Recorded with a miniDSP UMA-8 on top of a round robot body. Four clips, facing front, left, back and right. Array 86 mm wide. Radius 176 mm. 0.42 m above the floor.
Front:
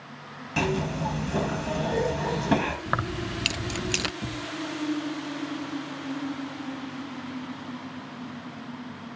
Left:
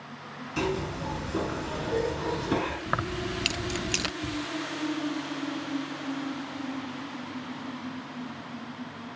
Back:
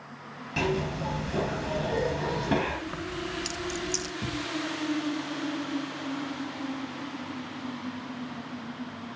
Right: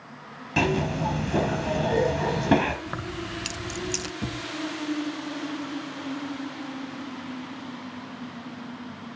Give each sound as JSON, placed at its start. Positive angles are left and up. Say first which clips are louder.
{"t": 0.6, "sound": "a zipper", "louder": "right 5 dB, front 2 dB", "azimuth_deg": -80, "distance_m": 3.5}
{"t": 2.9, "sound": "keys jangling", "louder": "left 3 dB, front 5 dB", "azimuth_deg": 25, "distance_m": 0.5}
{"t": 4.2, "sound": "a thud", "louder": "even, back 1 dB", "azimuth_deg": -100, "distance_m": 3.0}